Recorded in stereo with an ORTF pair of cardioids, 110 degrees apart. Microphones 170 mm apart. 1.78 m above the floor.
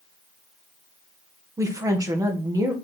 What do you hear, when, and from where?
1.6 s a woman speaking: 20° right, 1.9 m